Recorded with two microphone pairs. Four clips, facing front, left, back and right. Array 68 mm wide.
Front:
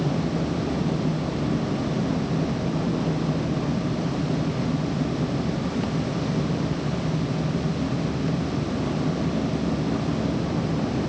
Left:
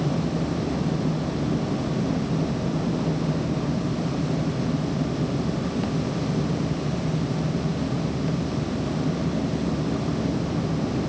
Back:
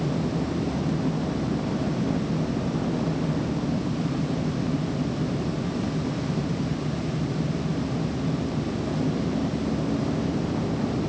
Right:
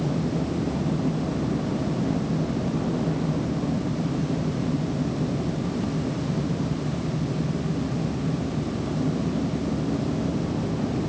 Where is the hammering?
No hammering in this recording.